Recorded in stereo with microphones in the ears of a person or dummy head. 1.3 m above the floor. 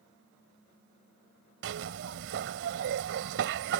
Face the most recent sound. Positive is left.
turn(degrees=-75)  # may be behind; listen again after turning